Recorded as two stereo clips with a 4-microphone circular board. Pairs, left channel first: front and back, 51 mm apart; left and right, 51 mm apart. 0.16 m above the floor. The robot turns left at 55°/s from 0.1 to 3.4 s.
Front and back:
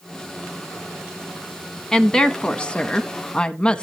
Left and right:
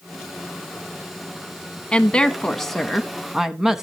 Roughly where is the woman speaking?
Ahead left.